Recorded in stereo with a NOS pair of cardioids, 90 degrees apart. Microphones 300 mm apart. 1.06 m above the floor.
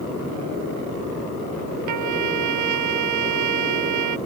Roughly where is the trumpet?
Ahead right.